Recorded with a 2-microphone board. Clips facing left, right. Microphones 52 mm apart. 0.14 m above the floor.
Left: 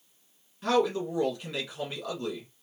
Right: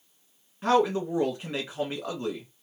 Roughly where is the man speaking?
Right.